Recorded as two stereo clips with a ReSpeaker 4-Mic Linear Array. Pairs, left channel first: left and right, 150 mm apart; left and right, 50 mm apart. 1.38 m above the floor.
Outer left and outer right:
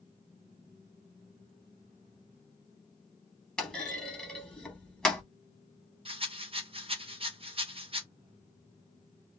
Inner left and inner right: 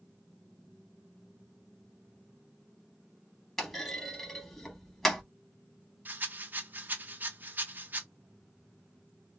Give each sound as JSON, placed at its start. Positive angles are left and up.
{"t": 3.6, "sound": "a clunk", "side_deg": 5, "distance_m": 0.8}
{"t": 6.0, "sound": "a rattle", "side_deg": -35, "distance_m": 0.6}